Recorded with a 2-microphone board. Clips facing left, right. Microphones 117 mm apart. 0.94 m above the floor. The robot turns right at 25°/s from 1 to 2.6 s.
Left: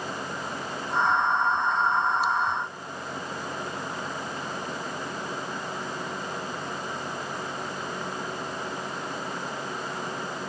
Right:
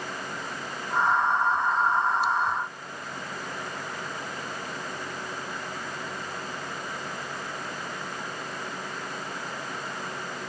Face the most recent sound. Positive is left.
No sound to turn to.